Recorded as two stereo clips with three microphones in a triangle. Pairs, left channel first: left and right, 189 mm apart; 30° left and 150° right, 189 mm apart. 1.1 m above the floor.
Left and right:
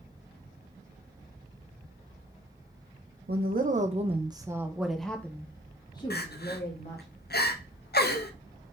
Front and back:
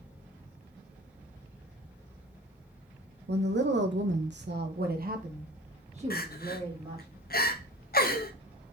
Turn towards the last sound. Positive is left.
turn(degrees=60)